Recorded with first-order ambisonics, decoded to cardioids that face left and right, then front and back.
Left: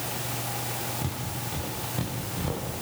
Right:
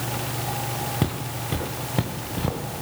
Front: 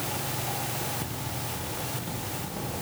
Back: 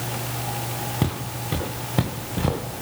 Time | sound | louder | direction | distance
1.0 | footsteps | right 5 dB, back 5 dB | 135° right | 4.5 m